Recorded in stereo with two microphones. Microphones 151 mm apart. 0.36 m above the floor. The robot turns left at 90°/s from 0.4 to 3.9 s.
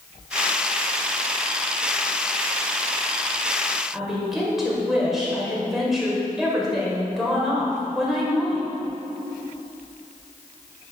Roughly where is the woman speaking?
Centre.